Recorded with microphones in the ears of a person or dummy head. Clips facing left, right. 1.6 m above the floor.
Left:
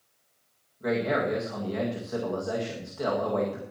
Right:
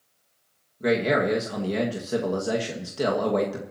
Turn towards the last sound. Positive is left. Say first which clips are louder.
# right 4 dB
turn(degrees=-35)  # may be behind; listen again after turning